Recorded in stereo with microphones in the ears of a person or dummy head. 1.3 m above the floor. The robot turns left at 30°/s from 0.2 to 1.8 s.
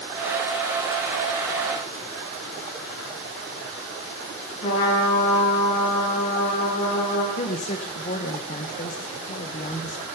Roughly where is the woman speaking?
Left.